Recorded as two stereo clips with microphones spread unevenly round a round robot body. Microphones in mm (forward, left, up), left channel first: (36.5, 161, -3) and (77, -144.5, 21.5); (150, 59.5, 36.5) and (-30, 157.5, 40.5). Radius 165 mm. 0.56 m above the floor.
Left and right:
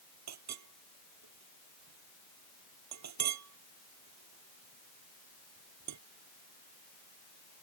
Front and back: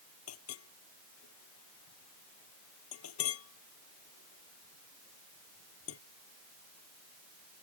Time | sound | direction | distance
0.3 | a clink | 50° right | ?